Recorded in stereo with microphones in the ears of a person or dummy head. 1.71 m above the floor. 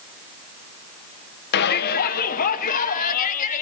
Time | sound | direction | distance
1.5 | a shout | 55° left (ahead or behind) | 1.8 m